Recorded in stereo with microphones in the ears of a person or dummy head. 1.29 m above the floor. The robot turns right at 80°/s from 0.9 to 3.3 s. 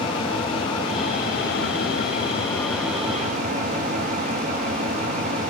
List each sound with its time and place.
0.0 s an engine running: 25° left, 2.5 m; by 5.5 s 140° right, 2.5 m